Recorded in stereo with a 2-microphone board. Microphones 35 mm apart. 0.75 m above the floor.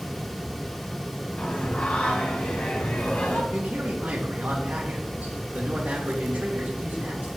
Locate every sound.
1.4 s singing: 40° left (ahead or behind), 1.9 m
3.5 s a man speaking: 65° right (ahead or behind), 2.5 m